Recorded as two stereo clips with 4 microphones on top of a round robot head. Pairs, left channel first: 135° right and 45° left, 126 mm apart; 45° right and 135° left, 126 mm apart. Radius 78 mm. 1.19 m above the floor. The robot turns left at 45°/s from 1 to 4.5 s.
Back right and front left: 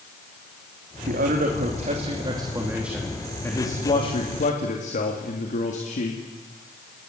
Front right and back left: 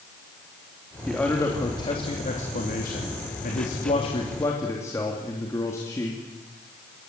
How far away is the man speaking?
About 3 m.